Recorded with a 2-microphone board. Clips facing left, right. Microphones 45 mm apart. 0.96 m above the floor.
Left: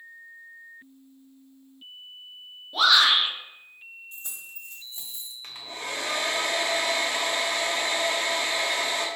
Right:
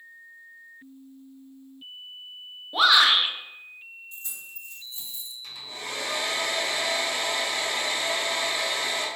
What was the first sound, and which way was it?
A shout, 20° right (ahead or behind).